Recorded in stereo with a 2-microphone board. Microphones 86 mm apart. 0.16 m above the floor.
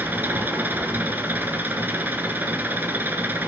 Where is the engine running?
25° right (ahead or behind), 1.0 m.